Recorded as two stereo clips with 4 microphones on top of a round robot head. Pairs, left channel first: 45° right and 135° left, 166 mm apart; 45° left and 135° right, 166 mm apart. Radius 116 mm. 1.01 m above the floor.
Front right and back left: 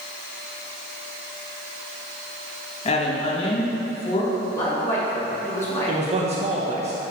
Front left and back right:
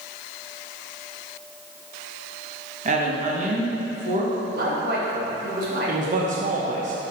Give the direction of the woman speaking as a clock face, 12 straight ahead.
3 o'clock.